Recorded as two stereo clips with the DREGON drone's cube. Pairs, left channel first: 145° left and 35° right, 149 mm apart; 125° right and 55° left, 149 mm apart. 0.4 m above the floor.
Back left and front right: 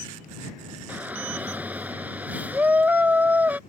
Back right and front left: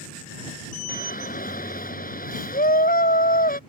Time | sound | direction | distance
0.9 | a shout | 115° right | ?